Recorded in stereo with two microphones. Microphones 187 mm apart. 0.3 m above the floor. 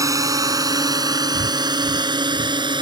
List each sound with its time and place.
0.0 s a drone: 15° right (ahead or behind); by 2.8 s 25° right (ahead or behind)
1.3 s breathing: 60° right (ahead or behind)